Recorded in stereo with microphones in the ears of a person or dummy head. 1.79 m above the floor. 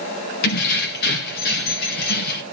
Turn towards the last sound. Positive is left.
turn(degrees=60)  # may be behind; listen again after turning